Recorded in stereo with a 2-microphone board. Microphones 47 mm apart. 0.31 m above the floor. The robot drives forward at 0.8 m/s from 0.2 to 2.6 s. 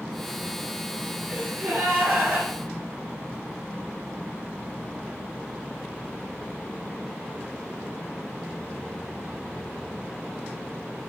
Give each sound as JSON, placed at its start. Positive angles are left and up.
{"t": 1.3, "sound": "a gasp", "side_deg": -30, "distance_m": 3.0}